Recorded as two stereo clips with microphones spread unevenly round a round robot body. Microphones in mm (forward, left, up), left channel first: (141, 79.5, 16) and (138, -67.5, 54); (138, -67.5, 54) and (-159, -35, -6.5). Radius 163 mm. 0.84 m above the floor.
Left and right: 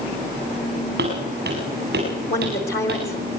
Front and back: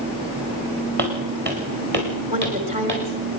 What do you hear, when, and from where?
1.0 s footsteps: 125° right, 6 m; by 3.0 s 130° right, 7 m
2.3 s a woman speaking: 105° left, 4.5 m